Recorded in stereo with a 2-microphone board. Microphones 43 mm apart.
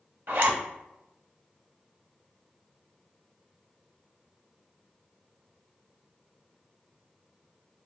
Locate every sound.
0.3 s a zipper: 55° right (ahead or behind), 0.8 m